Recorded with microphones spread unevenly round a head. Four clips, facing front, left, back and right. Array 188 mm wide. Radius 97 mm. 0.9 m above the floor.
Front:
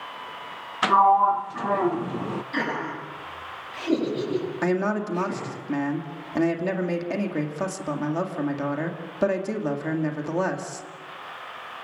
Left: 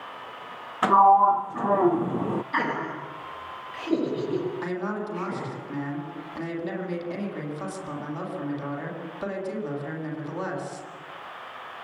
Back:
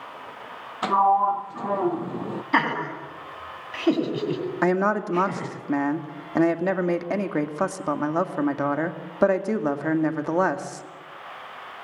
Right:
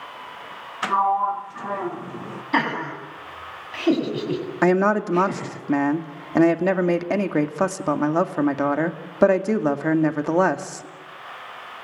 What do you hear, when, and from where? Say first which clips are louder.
0.8 s a sliding door: left 4 dB, front 2 dB; 85° left, 0.6 m
2.5 s laughter: right 4 dB, back 7 dB; 135° right, 9 m
4.6 s a woman speaking: right 12 dB, back 5 dB; 105° right, 2 m